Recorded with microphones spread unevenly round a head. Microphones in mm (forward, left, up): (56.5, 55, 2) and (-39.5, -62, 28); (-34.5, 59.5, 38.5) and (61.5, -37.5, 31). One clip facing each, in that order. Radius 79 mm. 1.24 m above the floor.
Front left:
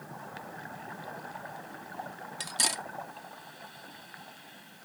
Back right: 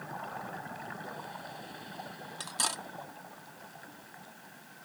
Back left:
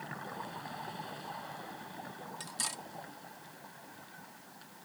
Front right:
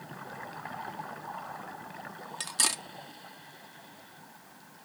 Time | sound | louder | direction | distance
2.4 | cutlery clinking | front left 2 dB, front right 5 dB | 25° right | ?